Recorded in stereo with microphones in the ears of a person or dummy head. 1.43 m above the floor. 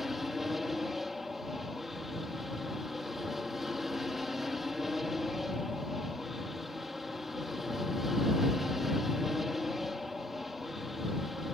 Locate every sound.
0.0 s an aircraft: centre (ahead or behind)